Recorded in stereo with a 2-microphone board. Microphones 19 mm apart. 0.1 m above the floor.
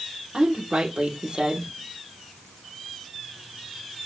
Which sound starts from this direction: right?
A woman speaking, at 0.3 s.